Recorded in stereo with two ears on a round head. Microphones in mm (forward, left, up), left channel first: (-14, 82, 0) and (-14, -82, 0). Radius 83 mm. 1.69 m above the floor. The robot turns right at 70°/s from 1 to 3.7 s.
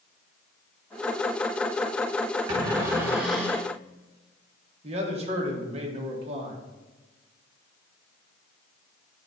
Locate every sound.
2.5 s a cupboard door: 25° right (ahead or behind), 1.4 m; by 3.7 s 10° left (ahead or behind), 1.4 m
4.8 s a man speaking: 35° right (ahead or behind), 1.4 m